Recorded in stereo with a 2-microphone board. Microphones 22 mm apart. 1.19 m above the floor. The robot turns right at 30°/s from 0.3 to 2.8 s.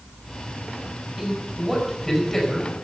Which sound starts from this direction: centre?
A man speaking, at 1.2 s.